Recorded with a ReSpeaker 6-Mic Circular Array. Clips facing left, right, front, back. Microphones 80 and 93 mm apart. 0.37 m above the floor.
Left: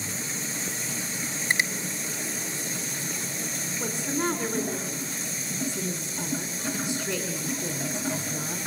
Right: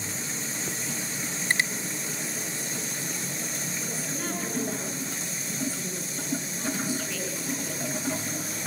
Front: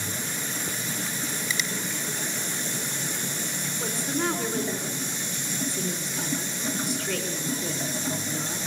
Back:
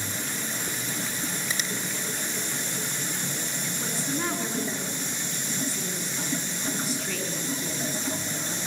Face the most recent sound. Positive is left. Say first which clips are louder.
# left 9 dB, front 3 dB
turn(degrees=90)